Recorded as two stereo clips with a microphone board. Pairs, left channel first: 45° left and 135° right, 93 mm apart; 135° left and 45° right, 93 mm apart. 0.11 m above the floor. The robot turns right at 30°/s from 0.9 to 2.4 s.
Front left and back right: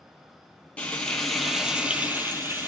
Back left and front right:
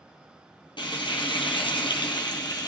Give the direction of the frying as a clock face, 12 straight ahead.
8 o'clock.